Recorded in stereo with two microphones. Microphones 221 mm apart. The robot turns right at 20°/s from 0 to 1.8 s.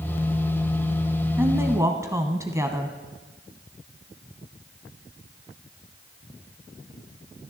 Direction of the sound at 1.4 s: 10° right (ahead or behind).